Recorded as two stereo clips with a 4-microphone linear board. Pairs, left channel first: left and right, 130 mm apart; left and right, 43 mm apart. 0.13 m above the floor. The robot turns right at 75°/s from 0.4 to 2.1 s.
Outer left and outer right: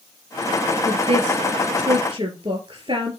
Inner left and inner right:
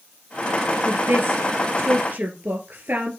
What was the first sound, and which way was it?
A woman speaking, 30° right (ahead or behind).